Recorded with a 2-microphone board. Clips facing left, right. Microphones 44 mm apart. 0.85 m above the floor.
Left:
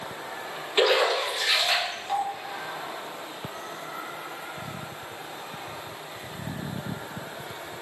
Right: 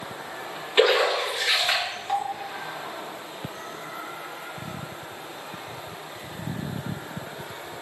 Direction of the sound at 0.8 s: 15° right (ahead or behind).